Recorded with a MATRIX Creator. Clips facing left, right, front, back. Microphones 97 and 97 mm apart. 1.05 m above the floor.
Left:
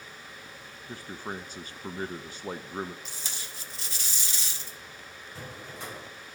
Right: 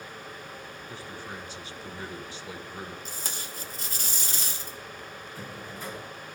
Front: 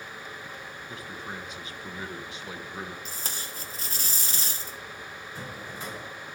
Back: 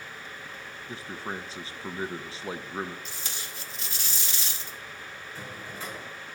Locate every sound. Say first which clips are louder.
0.9 s a man speaking: left 4 dB, back 4 dB; 125° left, 0.5 m
3.0 s tape being pulled: right 4 dB, front 2 dB; 45° right, 0.7 m
5.3 s a drawer: even, front 1 dB; 75° left, 4 m